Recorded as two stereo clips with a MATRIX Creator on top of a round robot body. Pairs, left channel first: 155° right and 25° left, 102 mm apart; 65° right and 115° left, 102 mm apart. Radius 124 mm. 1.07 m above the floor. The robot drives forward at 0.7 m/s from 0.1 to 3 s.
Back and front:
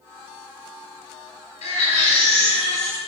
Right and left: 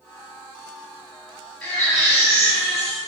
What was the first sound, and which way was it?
A baby crying, 150° right.